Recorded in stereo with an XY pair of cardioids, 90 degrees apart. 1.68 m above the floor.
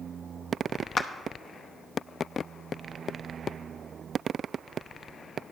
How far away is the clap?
About 0.8 m.